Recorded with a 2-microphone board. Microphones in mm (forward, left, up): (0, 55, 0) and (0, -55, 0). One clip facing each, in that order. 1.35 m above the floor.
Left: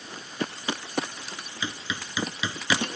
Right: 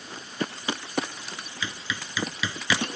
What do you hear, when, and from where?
1.6 s hammering: 20° left (ahead or behind)